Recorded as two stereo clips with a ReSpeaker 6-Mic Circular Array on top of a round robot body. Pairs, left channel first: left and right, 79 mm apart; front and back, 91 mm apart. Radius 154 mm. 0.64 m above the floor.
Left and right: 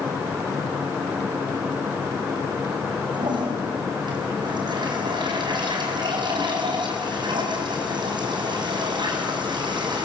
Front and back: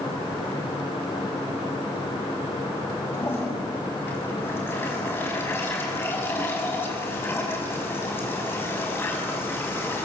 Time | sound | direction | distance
3.1 | a toilet flushing | 65° right | 5 m